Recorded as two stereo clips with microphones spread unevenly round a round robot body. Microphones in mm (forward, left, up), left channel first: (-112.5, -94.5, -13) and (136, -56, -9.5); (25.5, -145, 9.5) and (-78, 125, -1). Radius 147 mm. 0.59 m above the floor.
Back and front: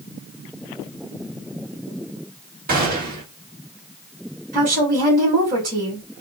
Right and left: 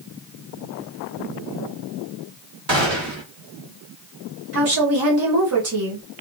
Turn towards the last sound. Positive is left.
turn(degrees=70)